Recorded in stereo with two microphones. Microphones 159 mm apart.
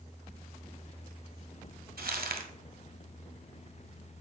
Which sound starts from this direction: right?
Crumpling, at 2.0 s.